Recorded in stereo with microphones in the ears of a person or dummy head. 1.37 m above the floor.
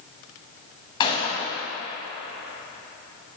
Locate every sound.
1.0 s a gunshot: 30° left (ahead or behind), 1.6 m